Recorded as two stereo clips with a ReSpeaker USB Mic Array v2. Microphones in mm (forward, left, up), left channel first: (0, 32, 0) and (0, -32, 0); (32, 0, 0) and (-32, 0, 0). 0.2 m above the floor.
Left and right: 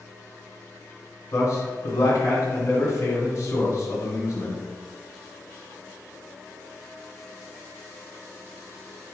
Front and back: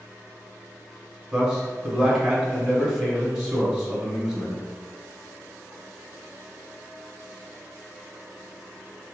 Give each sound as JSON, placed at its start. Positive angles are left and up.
{"t": 1.3, "sound": "a man speaking", "azimuth_deg": 105, "distance_m": 1.9}